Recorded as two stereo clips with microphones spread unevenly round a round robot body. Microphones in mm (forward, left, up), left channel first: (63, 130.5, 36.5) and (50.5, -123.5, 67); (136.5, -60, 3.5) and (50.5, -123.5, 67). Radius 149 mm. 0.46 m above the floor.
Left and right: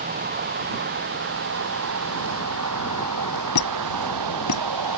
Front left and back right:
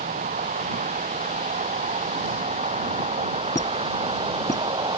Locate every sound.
0.0 s a vehicle: 155° right; by 5.0 s 105° right
3.5 s a squeak: 105° left